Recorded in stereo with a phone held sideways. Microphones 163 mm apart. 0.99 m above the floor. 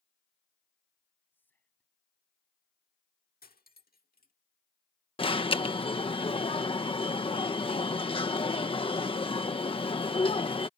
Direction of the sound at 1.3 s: 10° left (ahead or behind).